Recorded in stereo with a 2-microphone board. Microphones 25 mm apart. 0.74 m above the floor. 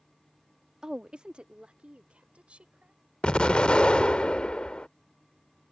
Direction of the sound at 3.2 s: 50° left (ahead or behind).